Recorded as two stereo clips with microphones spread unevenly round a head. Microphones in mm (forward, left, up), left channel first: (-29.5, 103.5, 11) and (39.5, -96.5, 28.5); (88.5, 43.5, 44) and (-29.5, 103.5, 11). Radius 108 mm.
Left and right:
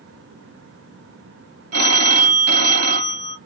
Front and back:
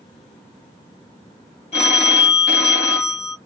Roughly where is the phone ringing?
Right.